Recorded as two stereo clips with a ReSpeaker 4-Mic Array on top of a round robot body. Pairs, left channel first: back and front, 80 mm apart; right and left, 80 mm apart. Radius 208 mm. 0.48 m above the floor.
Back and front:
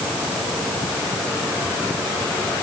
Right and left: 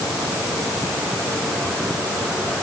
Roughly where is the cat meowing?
No cat meowing in this recording.